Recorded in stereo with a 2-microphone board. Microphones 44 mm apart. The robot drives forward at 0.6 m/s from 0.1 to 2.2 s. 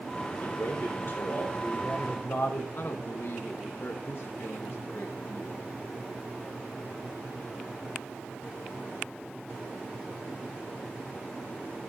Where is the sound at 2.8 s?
65° left (ahead or behind), 1.0 m.